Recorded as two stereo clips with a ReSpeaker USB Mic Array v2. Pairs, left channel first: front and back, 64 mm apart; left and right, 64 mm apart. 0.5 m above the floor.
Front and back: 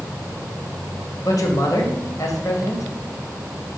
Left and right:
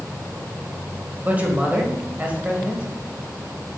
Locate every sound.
1.2 s a man speaking: 25° right, 1.9 m